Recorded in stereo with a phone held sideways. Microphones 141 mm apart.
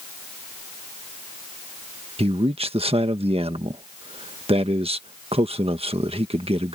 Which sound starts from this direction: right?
A man speaking, at 2.2 s.